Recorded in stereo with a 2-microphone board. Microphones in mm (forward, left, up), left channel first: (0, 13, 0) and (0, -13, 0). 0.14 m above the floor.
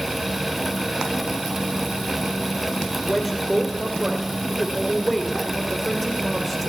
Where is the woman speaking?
10° left (ahead or behind), 3.5 m.